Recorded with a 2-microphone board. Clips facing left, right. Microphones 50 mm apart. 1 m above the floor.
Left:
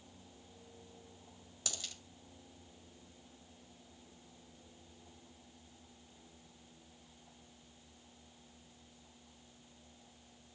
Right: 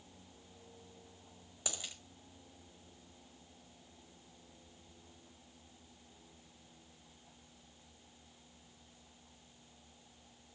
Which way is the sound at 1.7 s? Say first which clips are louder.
Right 2 dB; 20° right (ahead or behind).